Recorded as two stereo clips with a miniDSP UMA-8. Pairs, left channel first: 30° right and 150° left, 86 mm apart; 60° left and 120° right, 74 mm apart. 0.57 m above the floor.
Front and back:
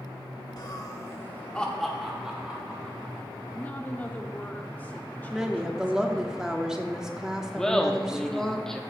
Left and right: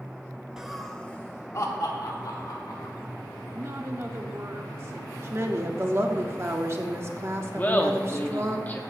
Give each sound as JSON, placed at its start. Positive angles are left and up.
{"t": 0.6, "sound": "laughter", "azimuth_deg": -40, "distance_m": 1.4}
{"t": 3.5, "sound": "a woman speaking", "azimuth_deg": -90, "distance_m": 1.3}
{"t": 5.3, "sound": "a woman speaking", "azimuth_deg": -130, "distance_m": 1.0}
{"t": 7.6, "sound": "laughter", "azimuth_deg": 45, "distance_m": 0.6}